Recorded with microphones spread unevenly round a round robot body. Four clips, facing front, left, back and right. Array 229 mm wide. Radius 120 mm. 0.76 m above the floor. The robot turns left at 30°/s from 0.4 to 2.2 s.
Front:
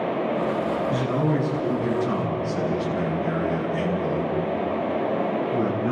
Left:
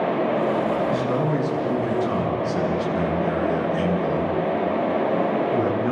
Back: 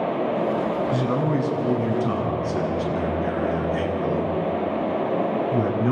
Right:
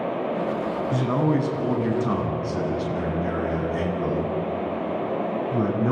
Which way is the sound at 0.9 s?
80° right.